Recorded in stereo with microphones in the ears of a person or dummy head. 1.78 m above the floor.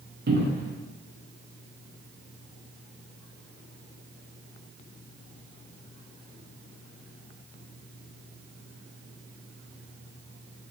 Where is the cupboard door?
60° right (ahead or behind), 0.7 m.